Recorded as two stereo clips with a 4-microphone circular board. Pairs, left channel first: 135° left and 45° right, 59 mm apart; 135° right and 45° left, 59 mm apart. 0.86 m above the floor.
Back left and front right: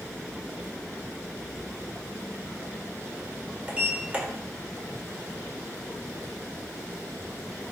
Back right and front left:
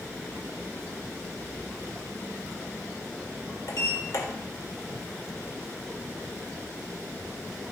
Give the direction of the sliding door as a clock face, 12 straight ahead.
4 o'clock.